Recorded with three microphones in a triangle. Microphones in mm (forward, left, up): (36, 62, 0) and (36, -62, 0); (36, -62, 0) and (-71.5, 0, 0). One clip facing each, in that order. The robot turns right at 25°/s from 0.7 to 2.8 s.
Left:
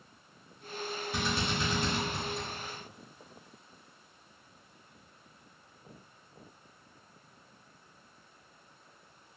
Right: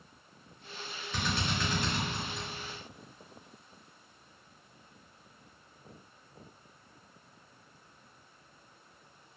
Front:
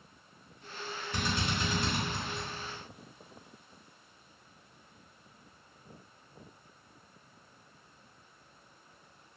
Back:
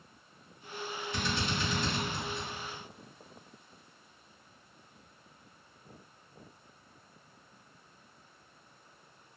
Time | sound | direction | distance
1.1 | a drill | 10° left | 1.9 m